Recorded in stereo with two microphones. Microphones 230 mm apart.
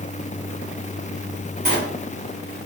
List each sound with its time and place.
1.6 s a sliding door: 40° right (ahead or behind), 1.1 m